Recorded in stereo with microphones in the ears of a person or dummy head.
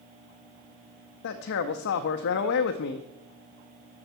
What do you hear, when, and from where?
1.2 s a man speaking: 60° left (ahead or behind), 0.5 m